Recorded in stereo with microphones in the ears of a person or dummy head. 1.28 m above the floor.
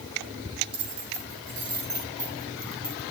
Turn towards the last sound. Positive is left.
turn(degrees=-30)  # may be behind; listen again after turning